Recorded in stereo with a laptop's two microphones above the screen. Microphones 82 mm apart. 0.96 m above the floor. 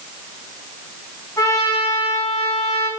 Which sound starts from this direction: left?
A trumpet, at 1.4 s.